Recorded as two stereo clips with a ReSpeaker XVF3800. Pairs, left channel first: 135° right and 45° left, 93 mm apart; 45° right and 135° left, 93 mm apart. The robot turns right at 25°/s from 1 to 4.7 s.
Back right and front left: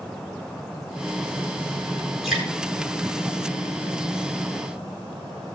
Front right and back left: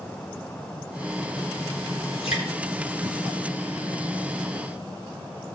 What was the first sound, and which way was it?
Dripping, 45° right.